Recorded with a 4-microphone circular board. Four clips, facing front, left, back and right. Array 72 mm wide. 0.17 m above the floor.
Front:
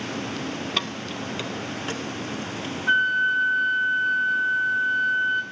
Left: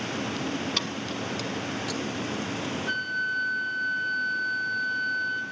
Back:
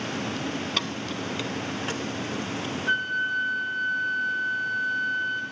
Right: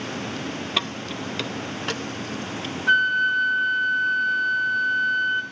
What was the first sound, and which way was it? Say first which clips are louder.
Keys jangling: right 3 dB, front 1 dB; 70° right.